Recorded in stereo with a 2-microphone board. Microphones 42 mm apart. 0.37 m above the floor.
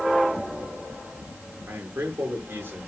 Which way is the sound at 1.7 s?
55° right (ahead or behind).